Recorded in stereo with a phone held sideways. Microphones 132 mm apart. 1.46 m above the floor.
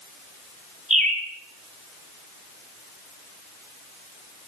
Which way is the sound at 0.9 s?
60° right (ahead or behind).